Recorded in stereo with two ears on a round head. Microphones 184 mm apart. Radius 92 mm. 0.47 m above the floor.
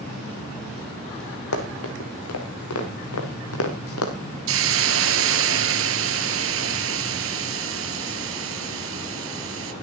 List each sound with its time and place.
1.5 s running footsteps: 80° left, 5 m
4.5 s a hiss: 70° right (ahead or behind), 1.6 m